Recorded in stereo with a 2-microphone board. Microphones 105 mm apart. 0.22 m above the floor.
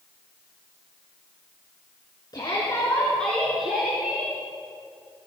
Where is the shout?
40° left (ahead or behind), 2.5 m; by 4.3 s 20° right (ahead or behind), 3.5 m.